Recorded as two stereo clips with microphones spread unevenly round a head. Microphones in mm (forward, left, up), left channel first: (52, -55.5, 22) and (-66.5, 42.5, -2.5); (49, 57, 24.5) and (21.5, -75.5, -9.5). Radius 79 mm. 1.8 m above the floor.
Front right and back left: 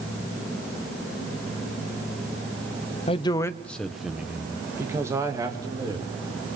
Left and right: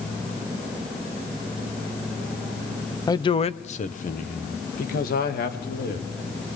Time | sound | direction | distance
3.1 | a man speaking | 15° left | 1.0 m